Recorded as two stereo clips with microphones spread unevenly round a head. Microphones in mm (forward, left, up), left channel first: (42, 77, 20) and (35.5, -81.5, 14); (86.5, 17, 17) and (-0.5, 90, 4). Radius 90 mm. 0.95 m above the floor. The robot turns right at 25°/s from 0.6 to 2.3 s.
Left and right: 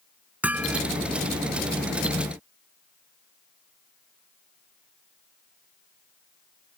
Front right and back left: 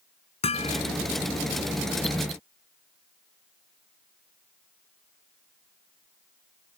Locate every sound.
0.4 s hammering: 10° right; by 0.8 s 5° right